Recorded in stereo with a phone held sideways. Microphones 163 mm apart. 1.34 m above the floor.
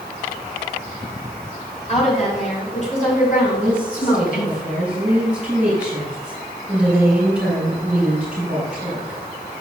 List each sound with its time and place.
1.9 s a woman speaking: 45° left (ahead or behind), 4.5 m; by 4.6 s 65° left (ahead or behind), 5.5 m
3.6 s a woman speaking: 5° right (ahead or behind), 5.5 m